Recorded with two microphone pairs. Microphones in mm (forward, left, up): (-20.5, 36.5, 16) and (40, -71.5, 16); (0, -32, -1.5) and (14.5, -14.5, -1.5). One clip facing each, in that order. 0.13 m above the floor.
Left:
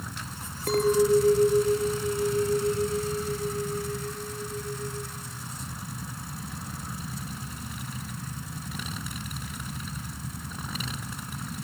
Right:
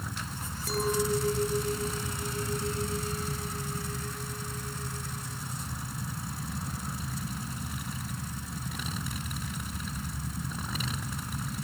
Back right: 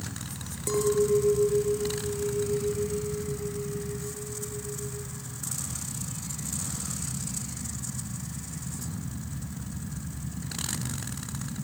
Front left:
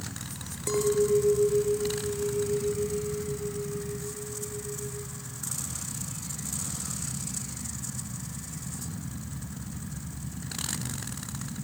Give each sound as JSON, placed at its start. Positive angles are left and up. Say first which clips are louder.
{"t": 0.7, "sound": "a clink", "louder": "left 8 dB, even", "azimuth_deg": 130, "distance_m": 1.4}